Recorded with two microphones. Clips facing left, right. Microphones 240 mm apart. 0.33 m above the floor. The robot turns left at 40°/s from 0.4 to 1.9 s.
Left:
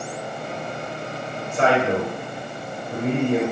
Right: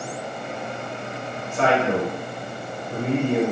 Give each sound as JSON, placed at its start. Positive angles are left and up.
{"t": 1.5, "sound": "a man speaking", "side_deg": 25, "distance_m": 0.9}